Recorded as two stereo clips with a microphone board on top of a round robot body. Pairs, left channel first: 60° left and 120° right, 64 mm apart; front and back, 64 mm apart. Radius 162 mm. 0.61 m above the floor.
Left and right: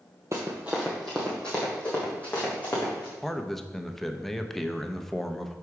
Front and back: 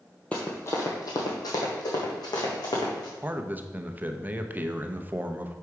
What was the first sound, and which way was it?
Running footsteps, 70° right.